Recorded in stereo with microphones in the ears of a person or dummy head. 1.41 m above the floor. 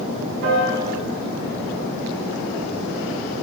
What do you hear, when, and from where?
0.4 s a piano: 65° right (ahead or behind), 1.4 m